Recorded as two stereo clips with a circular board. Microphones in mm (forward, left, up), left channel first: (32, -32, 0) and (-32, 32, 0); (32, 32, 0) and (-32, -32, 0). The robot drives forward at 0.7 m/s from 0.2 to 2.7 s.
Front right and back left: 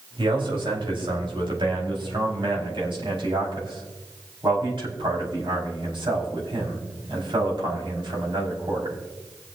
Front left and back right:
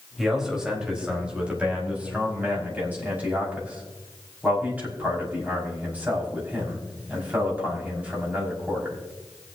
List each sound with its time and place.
0.2 s a man speaking: 140° left, 4 m; by 9.0 s 150° left, 5.5 m